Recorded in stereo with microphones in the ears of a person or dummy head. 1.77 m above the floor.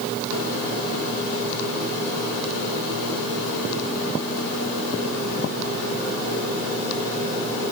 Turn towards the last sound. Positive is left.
No sound to turn to.